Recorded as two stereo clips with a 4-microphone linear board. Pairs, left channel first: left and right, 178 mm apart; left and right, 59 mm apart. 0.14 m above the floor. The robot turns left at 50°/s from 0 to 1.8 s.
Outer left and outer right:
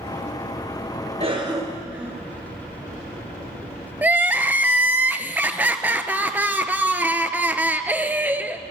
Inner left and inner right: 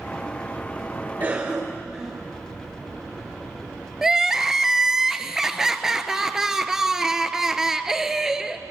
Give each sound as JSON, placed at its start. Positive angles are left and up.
{"t": 1.2, "sound": "a cough", "side_deg": -30, "distance_m": 1.7}
{"t": 4.0, "sound": "crying", "side_deg": -10, "distance_m": 0.6}